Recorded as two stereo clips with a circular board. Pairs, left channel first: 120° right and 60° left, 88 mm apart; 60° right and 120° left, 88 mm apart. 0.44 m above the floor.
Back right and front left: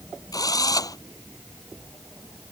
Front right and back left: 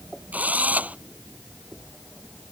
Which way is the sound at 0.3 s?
165° right.